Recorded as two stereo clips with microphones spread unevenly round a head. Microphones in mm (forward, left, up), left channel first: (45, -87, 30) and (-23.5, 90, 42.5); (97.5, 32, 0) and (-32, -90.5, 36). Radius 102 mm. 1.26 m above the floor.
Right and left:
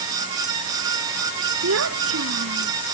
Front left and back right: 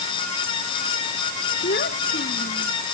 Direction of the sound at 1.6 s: 95° left.